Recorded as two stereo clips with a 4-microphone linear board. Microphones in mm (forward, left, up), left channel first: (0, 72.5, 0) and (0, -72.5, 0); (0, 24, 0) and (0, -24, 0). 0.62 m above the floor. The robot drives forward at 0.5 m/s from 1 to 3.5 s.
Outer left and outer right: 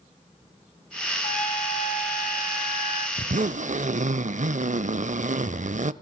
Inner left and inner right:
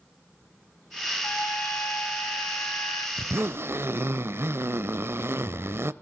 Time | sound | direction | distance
1.2 | a trumpet | 60° left (ahead or behind) | 2.5 m
3.2 | a zipper | 60° right (ahead or behind) | 0.5 m